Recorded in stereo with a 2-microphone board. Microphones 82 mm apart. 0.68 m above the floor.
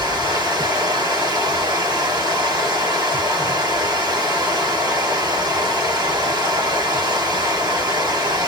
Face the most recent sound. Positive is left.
turn(degrees=-50)  # may be behind; listen again after turning